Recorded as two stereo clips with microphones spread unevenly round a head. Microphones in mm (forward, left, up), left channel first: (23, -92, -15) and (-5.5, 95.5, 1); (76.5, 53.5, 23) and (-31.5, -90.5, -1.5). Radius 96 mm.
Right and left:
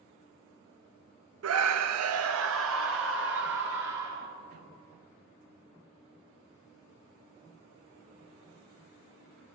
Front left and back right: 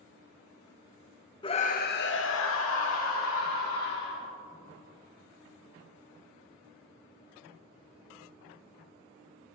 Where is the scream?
120° left, 0.5 m; by 4.3 s 65° left, 2 m.